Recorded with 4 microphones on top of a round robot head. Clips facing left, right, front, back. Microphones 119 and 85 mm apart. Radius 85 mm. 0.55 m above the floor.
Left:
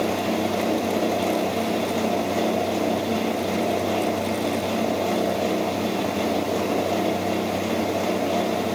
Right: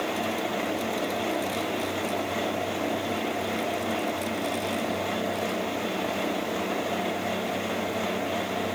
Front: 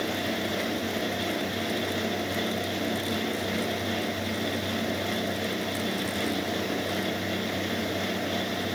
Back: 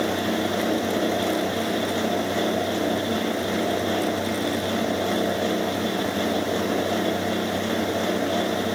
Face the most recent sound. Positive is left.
No sound to turn to.